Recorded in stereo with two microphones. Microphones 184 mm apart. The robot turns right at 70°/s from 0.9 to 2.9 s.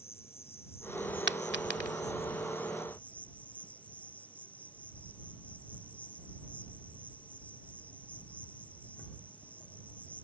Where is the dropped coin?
80° right; by 1.9 s 55° right (ahead or behind).